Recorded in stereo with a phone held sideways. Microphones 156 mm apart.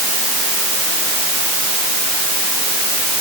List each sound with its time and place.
Only background noise.